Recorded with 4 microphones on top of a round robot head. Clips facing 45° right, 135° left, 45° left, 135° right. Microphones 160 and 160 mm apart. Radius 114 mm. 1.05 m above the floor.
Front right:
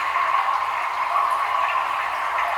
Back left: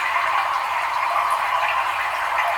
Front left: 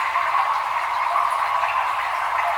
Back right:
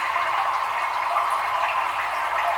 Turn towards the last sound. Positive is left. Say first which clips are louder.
# even, front left 2 dB
turn(degrees=170)